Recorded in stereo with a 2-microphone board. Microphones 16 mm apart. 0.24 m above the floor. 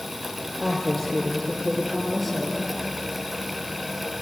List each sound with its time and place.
0.6 s a woman speaking: 15° left (ahead or behind), 5 m; by 2.6 s 5° right (ahead or behind), 6 m